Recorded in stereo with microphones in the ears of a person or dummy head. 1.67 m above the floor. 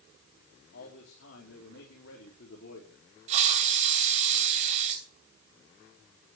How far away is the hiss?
About 2.5 m.